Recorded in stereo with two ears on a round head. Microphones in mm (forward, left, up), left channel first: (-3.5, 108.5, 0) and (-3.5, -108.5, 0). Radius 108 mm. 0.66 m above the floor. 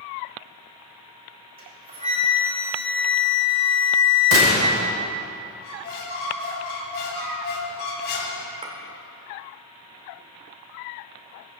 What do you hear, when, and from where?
1.6 s a flute: 40° right (ahead or behind), 5 m
4.3 s a gunshot: 65° right (ahead or behind), 2.5 m
5.6 s a squeak: 50° left (ahead or behind), 2.5 m
8.6 s a clink: 30° right (ahead or behind), 1.6 m